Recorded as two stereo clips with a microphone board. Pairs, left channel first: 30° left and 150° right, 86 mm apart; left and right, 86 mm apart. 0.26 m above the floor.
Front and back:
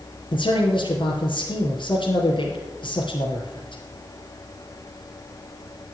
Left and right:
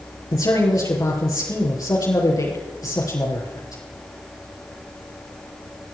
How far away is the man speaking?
About 4.5 m.